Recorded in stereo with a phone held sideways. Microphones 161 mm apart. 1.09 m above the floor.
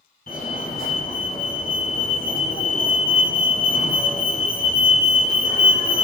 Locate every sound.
0.3 s a fire alarm: 65° left (ahead or behind), 2.5 m